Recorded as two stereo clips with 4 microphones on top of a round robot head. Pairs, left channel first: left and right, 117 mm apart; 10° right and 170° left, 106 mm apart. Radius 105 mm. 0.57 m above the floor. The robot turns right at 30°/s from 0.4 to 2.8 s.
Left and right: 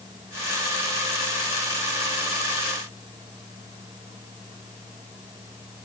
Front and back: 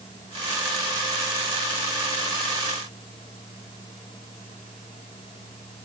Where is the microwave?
No microwave in this recording.